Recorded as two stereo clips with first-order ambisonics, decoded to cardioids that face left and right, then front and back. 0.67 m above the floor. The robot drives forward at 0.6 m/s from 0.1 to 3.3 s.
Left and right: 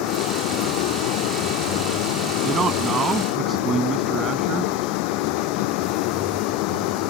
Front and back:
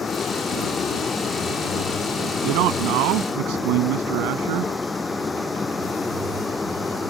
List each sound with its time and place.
0.0 s a vehicle: 70° left; by 7.1 s 80° left
2.4 s a man speaking: 160° right